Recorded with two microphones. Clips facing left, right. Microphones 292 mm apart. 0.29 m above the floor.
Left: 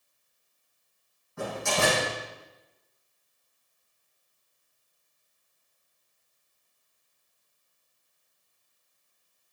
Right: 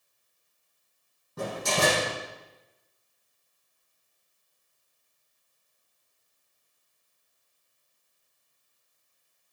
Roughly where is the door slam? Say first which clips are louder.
Right 1 dB; right.